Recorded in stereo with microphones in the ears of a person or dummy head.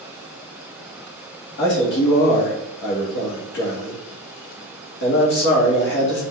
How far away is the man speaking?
About 1.6 m.